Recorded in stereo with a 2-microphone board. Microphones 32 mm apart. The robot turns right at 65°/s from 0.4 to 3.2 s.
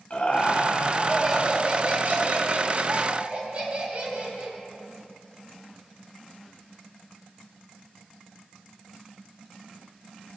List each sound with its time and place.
0.1 s laughter: 130° left, 2 m; by 4.6 s 45° right, 2 m